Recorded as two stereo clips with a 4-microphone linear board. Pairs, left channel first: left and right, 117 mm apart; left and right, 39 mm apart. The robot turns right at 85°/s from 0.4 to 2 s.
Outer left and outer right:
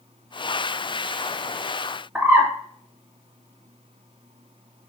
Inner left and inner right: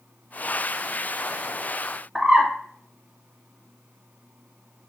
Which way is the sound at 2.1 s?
15° right (ahead or behind).